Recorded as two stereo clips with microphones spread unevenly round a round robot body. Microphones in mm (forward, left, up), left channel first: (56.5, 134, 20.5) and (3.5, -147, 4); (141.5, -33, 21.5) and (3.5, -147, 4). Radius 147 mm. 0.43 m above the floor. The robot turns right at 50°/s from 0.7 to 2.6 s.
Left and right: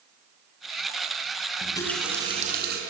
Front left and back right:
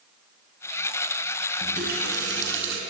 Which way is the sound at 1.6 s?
150° left.